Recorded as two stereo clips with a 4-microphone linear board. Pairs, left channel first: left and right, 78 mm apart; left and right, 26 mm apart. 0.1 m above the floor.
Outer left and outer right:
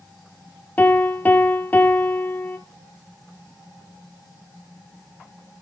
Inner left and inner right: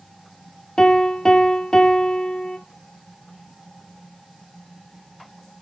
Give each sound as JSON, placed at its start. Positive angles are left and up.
{"t": 0.8, "sound": "a piano", "side_deg": 20, "distance_m": 0.8}